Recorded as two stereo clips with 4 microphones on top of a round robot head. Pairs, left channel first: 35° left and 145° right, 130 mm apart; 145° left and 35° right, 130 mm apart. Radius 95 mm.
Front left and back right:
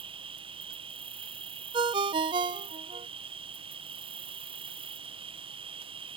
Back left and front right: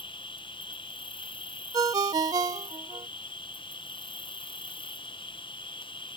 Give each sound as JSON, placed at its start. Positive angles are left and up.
{"t": 0.0, "sound": "an insect", "azimuth_deg": -175}
{"t": 1.7, "sound": "a ringtone", "azimuth_deg": -95}